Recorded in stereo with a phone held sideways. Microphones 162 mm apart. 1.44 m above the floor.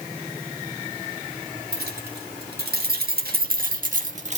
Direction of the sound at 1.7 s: 80° right.